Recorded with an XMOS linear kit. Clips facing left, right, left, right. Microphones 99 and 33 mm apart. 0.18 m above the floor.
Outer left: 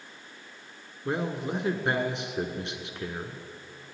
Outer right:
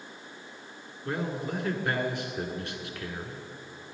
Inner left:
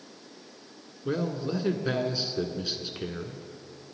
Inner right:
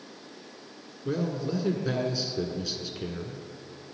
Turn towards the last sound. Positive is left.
turn(degrees=25)  # may be behind; listen again after turning